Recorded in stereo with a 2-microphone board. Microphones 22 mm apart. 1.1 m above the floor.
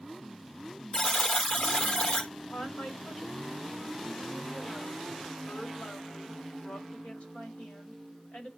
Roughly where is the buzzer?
Left.